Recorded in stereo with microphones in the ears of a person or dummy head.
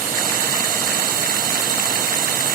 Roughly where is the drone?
Right.